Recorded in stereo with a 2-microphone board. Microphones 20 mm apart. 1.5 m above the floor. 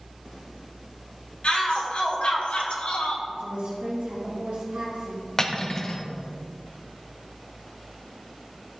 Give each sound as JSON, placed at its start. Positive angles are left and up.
{"t": 1.4, "sound": "a shout", "side_deg": 60, "distance_m": 2.5}
{"t": 3.3, "sound": "a woman speaking", "side_deg": -85, "distance_m": 1.7}
{"t": 5.4, "sound": "cutlery clinking", "side_deg": 20, "distance_m": 0.7}